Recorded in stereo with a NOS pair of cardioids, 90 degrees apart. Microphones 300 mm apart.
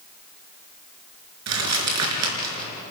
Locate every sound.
1.5 s crumpling: 65° right, 5 m